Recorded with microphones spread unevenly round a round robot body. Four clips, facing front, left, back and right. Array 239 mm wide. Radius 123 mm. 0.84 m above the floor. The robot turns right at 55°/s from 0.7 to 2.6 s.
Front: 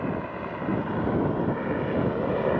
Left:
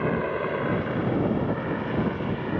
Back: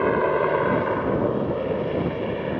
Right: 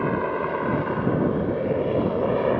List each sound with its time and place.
0.0 s a helicopter: 170° right; by 2.6 s 70° right